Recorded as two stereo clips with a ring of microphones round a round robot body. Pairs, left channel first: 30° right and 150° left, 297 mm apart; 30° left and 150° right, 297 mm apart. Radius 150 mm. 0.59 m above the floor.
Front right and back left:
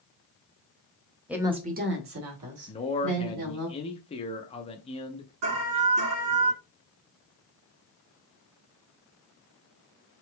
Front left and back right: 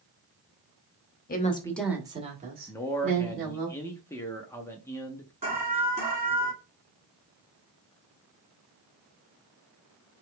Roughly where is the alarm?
Behind left.